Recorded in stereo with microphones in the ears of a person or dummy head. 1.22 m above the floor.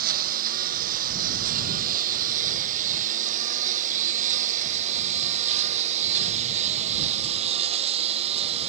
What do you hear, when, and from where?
0.0 s a lawn mower: 55° right (ahead or behind); by 8.7 s 40° right (ahead or behind)